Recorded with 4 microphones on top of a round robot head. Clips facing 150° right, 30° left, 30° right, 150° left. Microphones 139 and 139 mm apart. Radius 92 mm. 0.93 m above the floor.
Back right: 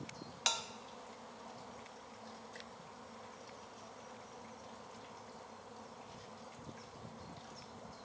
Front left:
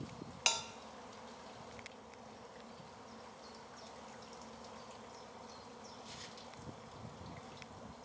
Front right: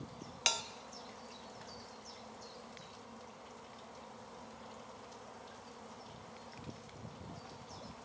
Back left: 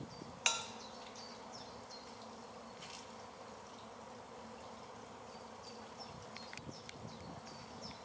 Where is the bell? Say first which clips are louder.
Front left 1 dB, front right 2 dB; 35° right, 0.6 m.